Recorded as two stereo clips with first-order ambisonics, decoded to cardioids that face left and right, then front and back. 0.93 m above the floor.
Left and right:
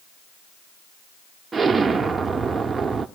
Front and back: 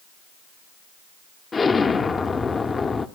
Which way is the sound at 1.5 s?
40° right.